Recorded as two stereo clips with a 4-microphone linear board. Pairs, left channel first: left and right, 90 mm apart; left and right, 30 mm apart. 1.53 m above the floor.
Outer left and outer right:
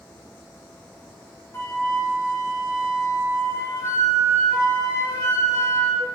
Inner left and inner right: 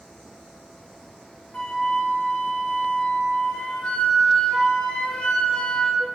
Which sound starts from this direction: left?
A flute, at 1.5 s.